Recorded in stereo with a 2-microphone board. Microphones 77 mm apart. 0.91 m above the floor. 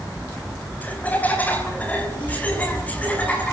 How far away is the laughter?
About 5.5 m.